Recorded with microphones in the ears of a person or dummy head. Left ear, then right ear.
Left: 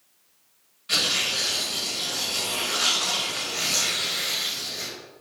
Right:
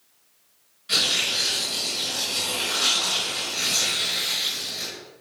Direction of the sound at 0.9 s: 5° left (ahead or behind).